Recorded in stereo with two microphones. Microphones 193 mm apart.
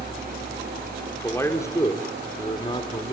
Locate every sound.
1.1 s a man speaking: 10° left (ahead or behind), 3 m; by 3.1 s 25° left (ahead or behind), 4 m